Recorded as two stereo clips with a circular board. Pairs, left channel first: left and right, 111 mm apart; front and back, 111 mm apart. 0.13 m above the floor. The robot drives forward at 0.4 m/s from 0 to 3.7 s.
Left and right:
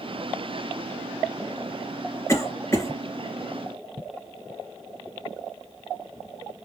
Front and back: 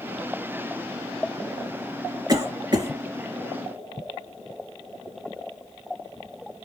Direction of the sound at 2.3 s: 140° left.